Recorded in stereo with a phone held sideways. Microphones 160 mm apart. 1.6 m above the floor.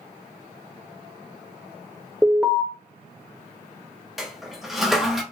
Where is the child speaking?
No child speaking in this recording.